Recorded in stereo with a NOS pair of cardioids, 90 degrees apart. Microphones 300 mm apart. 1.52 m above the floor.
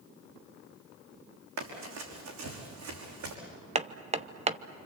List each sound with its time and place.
1.6 s running footsteps: 65° right, 5 m; by 3.4 s 70° right, 6 m
3.8 s hammering: 20° right, 0.8 m